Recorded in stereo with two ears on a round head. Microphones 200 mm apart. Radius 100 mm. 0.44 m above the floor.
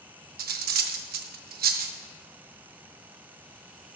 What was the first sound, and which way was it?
Cutlery clinking, 40° right (ahead or behind).